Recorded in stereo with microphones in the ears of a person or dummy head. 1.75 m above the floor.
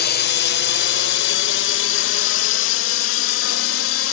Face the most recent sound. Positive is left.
turn(degrees=70)  # may be behind; listen again after turning